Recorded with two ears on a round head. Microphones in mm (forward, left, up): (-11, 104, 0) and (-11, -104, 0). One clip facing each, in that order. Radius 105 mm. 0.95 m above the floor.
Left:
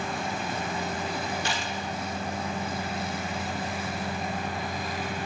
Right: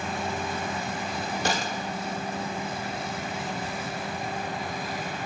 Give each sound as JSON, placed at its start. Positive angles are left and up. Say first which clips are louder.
{"t": 1.4, "sound": "a gunshot", "louder": "right 3 dB", "side_deg": -35, "distance_m": 1.0}